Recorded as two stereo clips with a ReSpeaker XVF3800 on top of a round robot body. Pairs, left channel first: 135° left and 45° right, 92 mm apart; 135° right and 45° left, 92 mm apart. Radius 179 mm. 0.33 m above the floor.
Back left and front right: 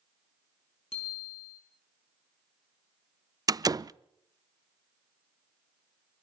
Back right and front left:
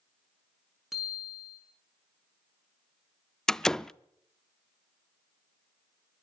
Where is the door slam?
55° right, 0.6 m.